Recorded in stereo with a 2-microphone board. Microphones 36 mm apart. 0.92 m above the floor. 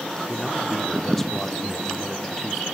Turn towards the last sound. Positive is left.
turn(degrees=10)  # may be behind; listen again after turning